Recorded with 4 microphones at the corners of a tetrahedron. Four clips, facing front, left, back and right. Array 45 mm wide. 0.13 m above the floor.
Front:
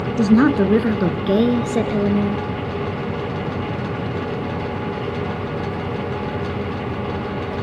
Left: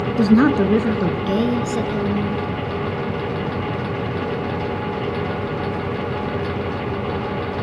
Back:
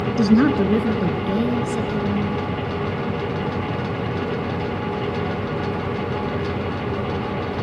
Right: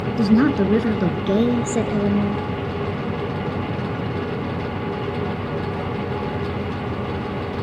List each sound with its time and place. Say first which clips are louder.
0.2 s a woman speaking: left 2 dB, front 2 dB; 70° left, 1.1 m; by 2.4 s 20° right, 2 m